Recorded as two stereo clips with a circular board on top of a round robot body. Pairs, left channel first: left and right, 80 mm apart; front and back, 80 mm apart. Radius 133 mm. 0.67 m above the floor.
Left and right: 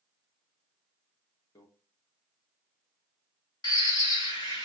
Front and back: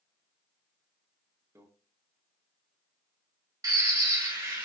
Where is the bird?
125° left, 1.4 m.